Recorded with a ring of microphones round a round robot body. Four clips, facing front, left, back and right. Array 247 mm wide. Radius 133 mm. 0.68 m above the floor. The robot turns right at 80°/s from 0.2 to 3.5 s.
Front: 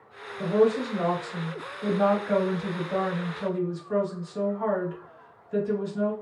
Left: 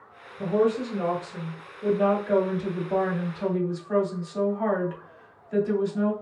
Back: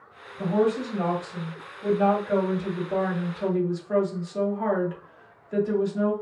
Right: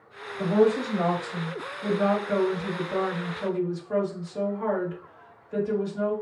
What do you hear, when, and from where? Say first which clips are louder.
0.4 s a woman speaking: right 2 dB, front 1 dB; 125° right, 2.5 m; by 6.1 s 125° left, 2.5 m